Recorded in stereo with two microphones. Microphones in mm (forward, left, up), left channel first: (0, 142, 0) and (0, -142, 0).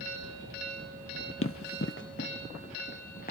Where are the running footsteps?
45° left (ahead or behind), 0.5 m; by 3.3 s 30° left (ahead or behind), 1.8 m.